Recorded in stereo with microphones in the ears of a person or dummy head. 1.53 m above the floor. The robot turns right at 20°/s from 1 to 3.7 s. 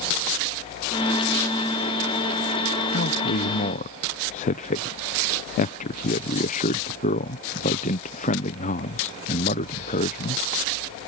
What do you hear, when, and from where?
2.9 s a man speaking: 50° left (ahead or behind); by 10.4 s 35° left (ahead or behind)